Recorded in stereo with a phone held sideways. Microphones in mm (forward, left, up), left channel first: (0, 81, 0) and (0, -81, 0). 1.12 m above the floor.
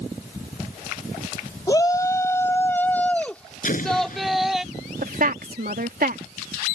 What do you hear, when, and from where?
1.7 s a shout: 25° left (ahead or behind); by 4.6 s 5° right (ahead or behind)
3.6 s an explosion: 55° left (ahead or behind)
5.0 s a woman speaking: 65° right (ahead or behind)